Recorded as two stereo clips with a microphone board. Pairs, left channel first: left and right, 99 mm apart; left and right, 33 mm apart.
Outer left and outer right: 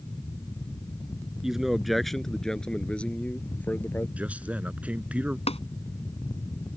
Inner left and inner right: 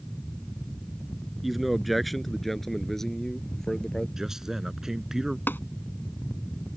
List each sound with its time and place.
1.4 s a man speaking: 5° right (ahead or behind); by 4.1 s 20° left (ahead or behind)
4.2 s a man speaking: 15° right (ahead or behind)
5.5 s tapping: 80° left